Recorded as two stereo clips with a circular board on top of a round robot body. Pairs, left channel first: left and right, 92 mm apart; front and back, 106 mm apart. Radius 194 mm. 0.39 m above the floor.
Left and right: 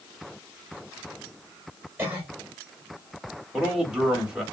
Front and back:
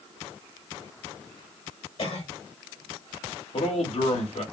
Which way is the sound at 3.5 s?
10° right.